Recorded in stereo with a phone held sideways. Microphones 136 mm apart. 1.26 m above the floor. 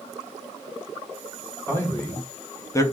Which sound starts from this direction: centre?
A man speaking, at 1.7 s.